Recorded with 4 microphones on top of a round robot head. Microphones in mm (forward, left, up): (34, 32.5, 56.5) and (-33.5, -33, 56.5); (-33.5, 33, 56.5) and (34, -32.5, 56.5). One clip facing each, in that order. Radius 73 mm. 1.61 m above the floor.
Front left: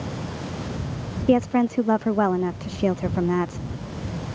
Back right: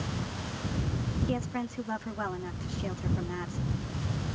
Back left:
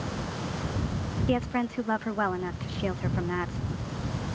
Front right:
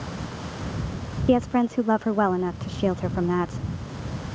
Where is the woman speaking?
15° left.